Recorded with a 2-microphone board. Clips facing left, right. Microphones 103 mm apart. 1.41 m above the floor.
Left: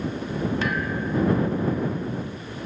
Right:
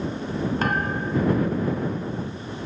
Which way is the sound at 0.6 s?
45° right (ahead or behind).